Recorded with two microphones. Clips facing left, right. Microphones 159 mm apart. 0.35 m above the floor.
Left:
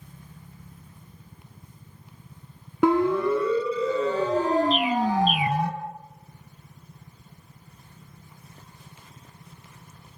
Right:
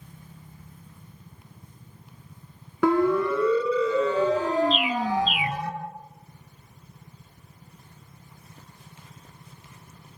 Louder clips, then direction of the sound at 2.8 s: Even; 20° left (ahead or behind).